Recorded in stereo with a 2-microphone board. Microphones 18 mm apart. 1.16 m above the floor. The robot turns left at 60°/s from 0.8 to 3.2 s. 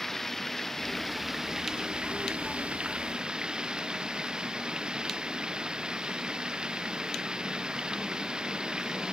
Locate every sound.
0.0 s running water: 15° left; by 9.1 s 130° right